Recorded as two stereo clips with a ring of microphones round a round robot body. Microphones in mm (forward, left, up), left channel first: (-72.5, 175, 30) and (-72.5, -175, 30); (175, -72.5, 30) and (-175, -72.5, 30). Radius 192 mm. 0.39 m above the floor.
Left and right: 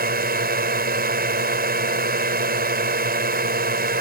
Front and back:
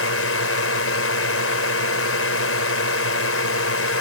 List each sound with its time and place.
0.0 s a drone: 35° right